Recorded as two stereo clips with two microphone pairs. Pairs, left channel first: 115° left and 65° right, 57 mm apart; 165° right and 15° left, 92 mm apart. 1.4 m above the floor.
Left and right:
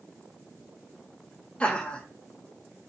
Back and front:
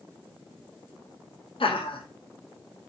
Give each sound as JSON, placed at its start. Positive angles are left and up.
{"t": 1.6, "sound": "laughter", "azimuth_deg": -170, "distance_m": 0.8}